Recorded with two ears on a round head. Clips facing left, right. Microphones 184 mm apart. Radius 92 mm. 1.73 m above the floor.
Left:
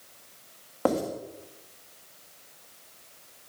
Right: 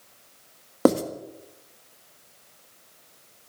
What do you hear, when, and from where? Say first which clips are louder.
0.8 s writing: right 6 dB; 55° right (ahead or behind), 1.7 m